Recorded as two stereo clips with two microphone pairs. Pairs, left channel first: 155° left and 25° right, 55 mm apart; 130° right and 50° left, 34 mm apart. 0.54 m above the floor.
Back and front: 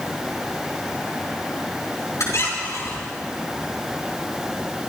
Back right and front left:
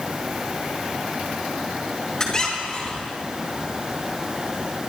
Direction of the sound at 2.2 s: 160° left.